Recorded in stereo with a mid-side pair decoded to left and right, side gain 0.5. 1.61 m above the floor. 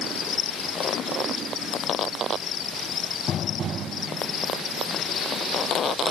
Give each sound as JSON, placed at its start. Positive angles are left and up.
{"t": 0.0, "sound": "an insect", "azimuth_deg": 55}